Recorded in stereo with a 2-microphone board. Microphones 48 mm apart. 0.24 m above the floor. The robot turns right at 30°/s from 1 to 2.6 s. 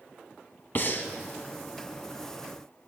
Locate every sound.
0.8 s breathing: 45° left (ahead or behind), 0.6 m